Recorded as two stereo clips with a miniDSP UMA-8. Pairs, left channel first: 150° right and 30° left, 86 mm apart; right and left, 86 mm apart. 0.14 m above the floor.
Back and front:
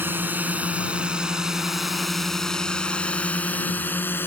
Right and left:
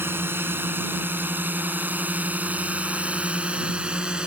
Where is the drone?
65° left; by 4.3 s 165° left.